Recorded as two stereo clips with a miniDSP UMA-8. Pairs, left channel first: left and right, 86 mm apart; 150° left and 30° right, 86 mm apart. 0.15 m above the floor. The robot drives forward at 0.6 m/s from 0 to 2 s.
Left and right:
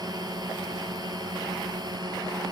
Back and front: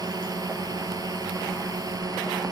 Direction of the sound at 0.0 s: 60° right.